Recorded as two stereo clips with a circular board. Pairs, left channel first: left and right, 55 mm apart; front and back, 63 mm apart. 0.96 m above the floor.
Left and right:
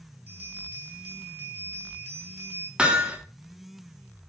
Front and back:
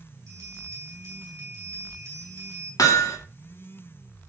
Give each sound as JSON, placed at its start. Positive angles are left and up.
{"t": 0.3, "sound": "a bell", "azimuth_deg": -140, "distance_m": 5.5}
{"t": 2.8, "sound": "hammering", "azimuth_deg": -15, "distance_m": 1.9}